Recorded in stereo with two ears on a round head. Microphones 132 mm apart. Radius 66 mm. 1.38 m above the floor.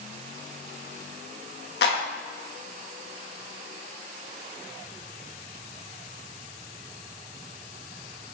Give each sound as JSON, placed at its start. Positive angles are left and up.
{"t": 1.8, "sound": "a clap", "side_deg": 75, "distance_m": 2.0}